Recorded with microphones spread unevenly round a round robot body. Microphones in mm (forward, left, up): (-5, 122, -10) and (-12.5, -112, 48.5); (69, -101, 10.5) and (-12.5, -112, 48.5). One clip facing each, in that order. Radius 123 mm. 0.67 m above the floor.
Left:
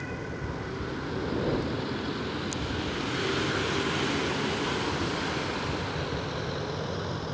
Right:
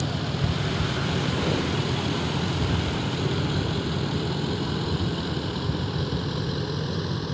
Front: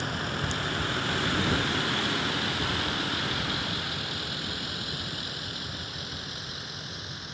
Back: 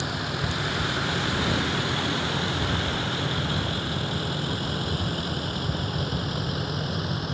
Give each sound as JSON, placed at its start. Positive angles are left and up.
{"t": 0.0, "sound": "a vehicle", "azimuth_deg": -95}